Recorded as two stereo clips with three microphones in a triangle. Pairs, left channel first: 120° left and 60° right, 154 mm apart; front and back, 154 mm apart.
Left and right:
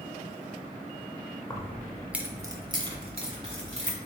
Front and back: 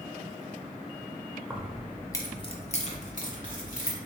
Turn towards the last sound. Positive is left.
turn(degrees=-20)